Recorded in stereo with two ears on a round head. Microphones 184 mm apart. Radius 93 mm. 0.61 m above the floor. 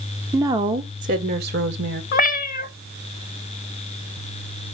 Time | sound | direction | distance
0.3 | a woman speaking | 10° right (ahead or behind) | 0.9 m
2.1 | a cat meowing | 40° left (ahead or behind) | 0.5 m